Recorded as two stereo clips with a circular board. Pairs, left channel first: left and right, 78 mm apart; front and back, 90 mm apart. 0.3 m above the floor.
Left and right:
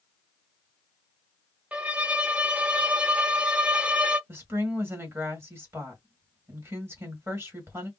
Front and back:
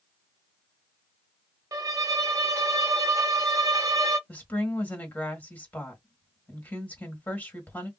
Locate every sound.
1.7 s a violin: 155° right, 0.5 m
4.3 s a woman speaking: 60° right, 1.5 m